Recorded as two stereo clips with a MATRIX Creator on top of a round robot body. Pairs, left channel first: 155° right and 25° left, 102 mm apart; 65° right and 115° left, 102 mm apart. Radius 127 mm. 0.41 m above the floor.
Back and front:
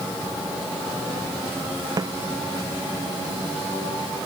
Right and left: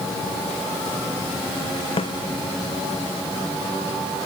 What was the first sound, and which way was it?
A snare drum, 30° right.